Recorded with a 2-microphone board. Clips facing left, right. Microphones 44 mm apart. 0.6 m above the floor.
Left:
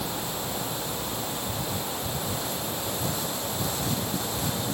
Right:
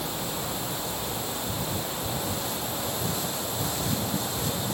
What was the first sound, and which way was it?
Only background noise.